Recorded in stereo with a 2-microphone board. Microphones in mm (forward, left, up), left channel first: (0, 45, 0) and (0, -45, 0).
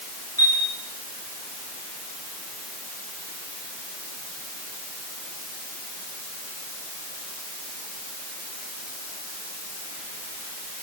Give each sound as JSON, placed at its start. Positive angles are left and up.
{"t": 0.4, "sound": "a chime", "side_deg": 40, "distance_m": 10.0}